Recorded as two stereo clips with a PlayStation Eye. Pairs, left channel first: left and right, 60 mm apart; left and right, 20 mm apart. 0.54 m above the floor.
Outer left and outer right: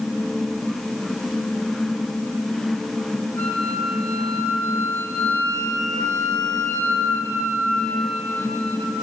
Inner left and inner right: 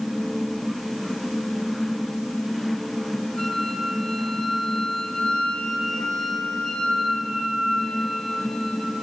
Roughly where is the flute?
Left.